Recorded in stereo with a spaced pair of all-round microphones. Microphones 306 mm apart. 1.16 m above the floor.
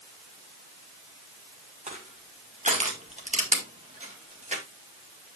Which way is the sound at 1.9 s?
25° right (ahead or behind).